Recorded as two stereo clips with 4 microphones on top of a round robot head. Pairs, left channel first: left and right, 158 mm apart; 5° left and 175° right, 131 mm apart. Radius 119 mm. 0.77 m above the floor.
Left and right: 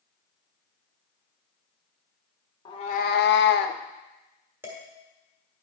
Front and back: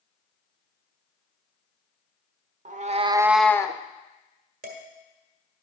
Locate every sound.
2.6 s a cat meowing: 160° left, 0.8 m; by 3.8 s 65° left, 0.8 m
4.6 s dishes clattering: 170° right, 1.5 m